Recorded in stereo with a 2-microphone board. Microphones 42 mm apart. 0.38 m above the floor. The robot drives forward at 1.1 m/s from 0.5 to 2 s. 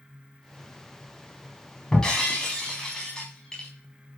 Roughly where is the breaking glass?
Centre.